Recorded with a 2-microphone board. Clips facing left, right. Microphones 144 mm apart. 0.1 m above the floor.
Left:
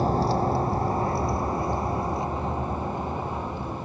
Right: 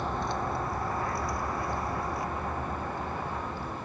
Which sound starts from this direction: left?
A vehicle, at 0.0 s.